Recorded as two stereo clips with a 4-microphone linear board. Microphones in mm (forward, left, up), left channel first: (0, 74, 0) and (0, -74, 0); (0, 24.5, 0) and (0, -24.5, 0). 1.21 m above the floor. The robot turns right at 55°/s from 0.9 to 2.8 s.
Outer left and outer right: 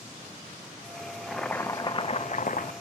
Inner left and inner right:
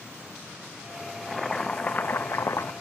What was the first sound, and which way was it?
Boiling, 5° right.